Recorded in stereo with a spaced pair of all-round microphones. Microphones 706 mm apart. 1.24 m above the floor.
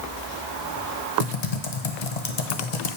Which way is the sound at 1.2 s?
60° left (ahead or behind).